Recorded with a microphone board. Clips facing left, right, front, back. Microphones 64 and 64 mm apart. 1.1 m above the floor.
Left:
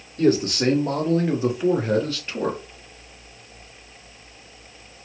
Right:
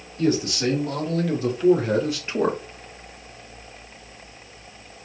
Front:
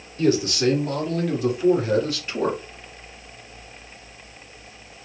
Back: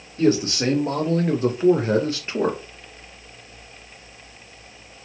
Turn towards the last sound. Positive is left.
turn(degrees=-120)